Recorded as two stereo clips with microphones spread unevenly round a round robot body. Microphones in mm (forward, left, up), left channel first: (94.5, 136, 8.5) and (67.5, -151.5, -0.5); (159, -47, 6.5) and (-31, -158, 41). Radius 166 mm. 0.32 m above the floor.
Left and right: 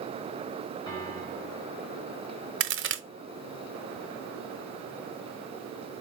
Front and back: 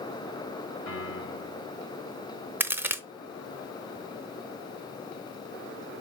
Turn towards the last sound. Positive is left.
turn(degrees=-60)